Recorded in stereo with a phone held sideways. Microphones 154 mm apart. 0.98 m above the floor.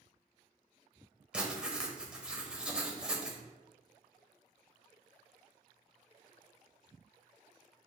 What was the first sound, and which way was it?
Writing, 5° right (ahead or behind).